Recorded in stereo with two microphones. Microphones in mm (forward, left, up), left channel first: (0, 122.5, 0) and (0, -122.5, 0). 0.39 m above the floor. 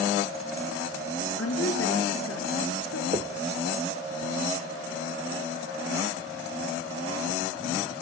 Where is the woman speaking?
65° left (ahead or behind), 5.5 m.